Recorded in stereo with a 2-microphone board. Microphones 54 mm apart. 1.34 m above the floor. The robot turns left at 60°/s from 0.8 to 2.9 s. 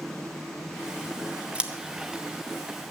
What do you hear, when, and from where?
1.6 s scissors: 20° right (ahead or behind), 1.0 m; by 1.7 s 15° right (ahead or behind), 1.0 m